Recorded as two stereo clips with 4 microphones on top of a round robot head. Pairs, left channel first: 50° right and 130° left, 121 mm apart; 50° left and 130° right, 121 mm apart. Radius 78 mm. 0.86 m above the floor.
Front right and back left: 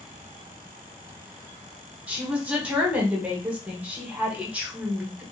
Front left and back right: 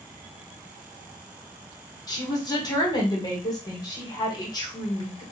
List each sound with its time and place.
2.1 s a woman speaking: 65° left, 1.0 m